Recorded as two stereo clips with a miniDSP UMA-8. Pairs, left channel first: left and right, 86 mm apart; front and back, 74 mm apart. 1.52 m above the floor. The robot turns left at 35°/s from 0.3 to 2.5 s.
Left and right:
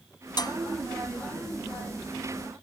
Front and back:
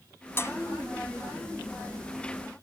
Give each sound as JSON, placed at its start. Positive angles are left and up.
{"t": 0.4, "sound": "dishes clattering", "azimuth_deg": 55}